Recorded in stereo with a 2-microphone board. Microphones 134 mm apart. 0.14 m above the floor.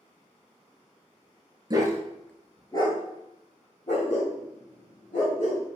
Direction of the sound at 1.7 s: 35° right (ahead or behind).